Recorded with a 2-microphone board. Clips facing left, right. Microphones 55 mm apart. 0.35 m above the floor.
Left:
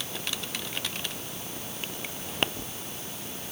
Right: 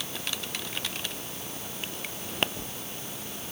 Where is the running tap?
I don't hear a running tap.